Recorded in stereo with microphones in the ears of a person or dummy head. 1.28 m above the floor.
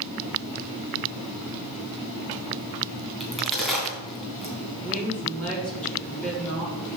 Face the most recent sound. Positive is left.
turn(degrees=5)  # may be behind; listen again after turning